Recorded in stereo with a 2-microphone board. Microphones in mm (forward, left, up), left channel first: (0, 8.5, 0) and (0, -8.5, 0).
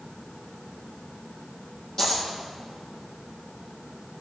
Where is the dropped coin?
45° left (ahead or behind), 3.5 m.